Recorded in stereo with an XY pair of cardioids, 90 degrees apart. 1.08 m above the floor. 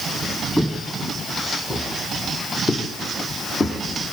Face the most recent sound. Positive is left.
turn(degrees=45)